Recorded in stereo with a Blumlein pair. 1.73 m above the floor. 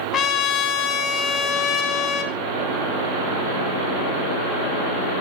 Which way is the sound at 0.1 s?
30° left.